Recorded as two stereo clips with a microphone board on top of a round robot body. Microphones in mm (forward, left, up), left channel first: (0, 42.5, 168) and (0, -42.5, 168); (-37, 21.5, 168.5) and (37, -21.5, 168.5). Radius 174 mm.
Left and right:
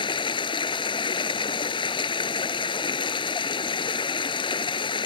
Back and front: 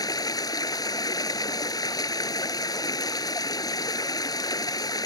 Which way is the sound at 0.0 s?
110° left.